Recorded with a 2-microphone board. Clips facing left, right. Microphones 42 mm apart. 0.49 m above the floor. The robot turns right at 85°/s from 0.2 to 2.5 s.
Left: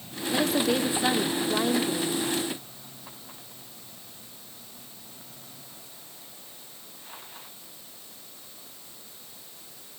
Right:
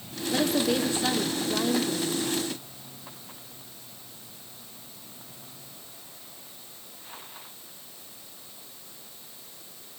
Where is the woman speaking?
5° right (ahead or behind), 1.2 m; by 2.2 s 10° left (ahead or behind), 1.2 m.